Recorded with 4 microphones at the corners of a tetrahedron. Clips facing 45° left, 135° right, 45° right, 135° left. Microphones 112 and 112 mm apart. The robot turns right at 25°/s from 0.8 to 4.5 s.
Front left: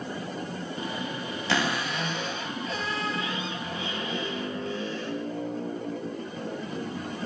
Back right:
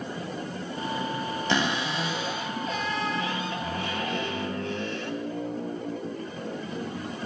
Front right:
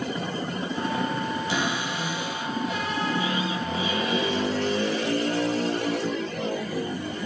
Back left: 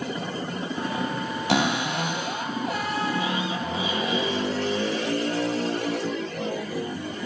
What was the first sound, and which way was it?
A cupboard door, 150° left.